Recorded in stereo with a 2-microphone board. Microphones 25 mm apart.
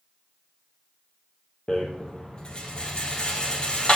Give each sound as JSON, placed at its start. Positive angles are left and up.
{"t": 1.7, "sound": "a rattle", "side_deg": 40, "distance_m": 2.0}